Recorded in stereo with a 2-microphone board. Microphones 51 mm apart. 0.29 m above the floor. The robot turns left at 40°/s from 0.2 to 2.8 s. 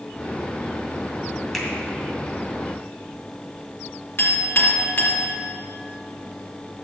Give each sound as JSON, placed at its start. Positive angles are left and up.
{"t": 1.5, "sound": "a finger snap", "side_deg": 0, "distance_m": 2.0}
{"t": 4.2, "sound": "a clink", "side_deg": 40, "distance_m": 2.5}